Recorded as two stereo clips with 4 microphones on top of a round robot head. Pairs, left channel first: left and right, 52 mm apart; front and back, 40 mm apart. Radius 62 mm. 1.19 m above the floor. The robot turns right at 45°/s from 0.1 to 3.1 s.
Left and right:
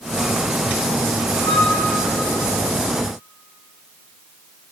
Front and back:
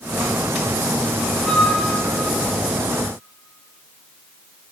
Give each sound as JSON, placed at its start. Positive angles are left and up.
{"t": 1.4, "sound": "a flute", "azimuth_deg": 55, "distance_m": 1.5}